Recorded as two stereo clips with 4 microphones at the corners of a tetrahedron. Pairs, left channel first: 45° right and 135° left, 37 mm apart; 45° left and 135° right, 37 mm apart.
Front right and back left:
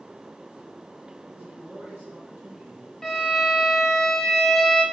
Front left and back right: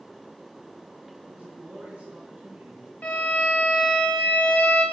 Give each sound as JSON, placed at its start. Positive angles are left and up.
{"t": 1.3, "sound": "a man speaking", "azimuth_deg": 170, "distance_m": 4.5}
{"t": 3.0, "sound": "a violin", "azimuth_deg": 35, "distance_m": 1.6}